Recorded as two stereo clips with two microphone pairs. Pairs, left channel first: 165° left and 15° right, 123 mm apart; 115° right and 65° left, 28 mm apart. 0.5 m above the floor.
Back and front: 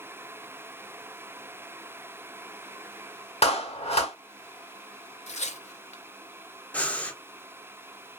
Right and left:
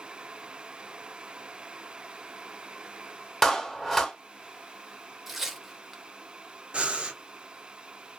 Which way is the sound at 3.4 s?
160° left.